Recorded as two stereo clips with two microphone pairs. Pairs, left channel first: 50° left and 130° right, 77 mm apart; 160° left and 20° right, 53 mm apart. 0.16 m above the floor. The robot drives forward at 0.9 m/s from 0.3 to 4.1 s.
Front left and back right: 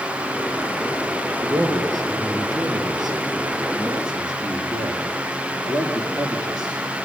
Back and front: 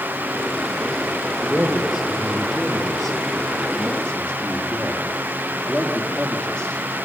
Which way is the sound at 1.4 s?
90° right.